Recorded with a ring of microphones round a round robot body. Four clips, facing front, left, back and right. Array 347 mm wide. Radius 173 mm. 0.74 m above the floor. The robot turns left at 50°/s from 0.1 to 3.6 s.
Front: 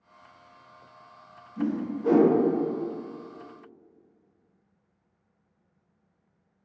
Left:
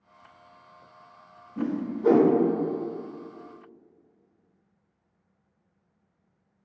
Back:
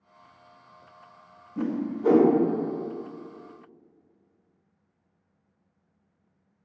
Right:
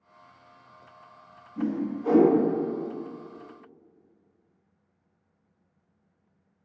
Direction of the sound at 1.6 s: 155° left.